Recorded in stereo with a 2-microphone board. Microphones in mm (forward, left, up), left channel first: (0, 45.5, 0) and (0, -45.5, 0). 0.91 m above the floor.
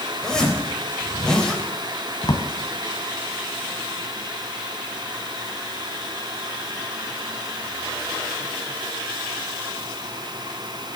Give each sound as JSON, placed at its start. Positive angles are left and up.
{"t": 0.2, "sound": "a zipper", "side_deg": 10, "distance_m": 3.5}
{"t": 2.2, "sound": "a drawer", "side_deg": 50, "distance_m": 1.9}